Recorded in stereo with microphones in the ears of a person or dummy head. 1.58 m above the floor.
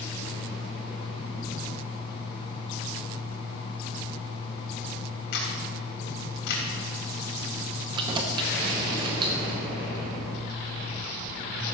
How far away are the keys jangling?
About 0.9 m.